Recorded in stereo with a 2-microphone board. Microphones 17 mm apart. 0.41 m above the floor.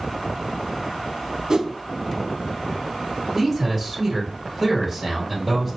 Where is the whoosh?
40° right (ahead or behind), 0.5 m.